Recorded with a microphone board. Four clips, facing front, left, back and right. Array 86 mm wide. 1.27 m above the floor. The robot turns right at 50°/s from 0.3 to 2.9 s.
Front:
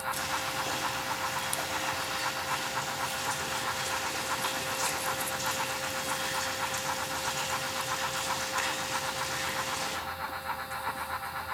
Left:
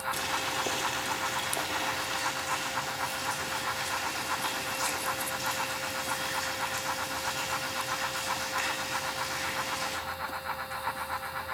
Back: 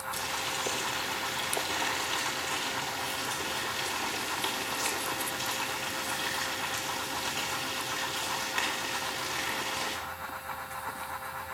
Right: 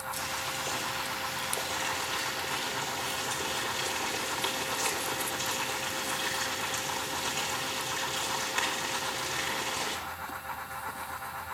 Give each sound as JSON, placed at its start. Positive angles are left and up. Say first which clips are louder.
{"t": 0.1, "sound": "boiling", "louder": "left 4 dB, front 2 dB", "azimuth_deg": 90, "distance_m": 4.0}